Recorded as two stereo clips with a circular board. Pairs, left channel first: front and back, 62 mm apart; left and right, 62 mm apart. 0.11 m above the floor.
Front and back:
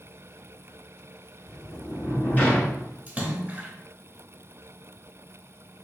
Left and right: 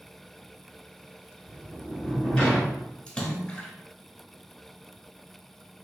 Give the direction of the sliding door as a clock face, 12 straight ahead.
11 o'clock.